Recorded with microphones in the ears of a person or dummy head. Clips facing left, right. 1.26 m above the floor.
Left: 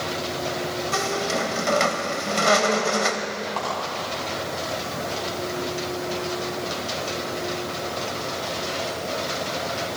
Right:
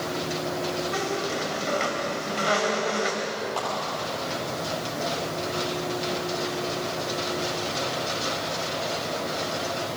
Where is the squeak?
65° left (ahead or behind), 2 m.